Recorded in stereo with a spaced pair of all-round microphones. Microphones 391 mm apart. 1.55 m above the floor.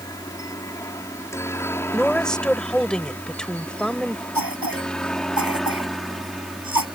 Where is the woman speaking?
Centre (ahead or behind).